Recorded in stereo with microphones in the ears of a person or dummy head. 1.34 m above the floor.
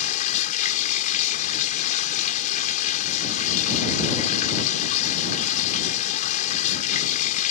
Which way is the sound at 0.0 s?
50° left (ahead or behind).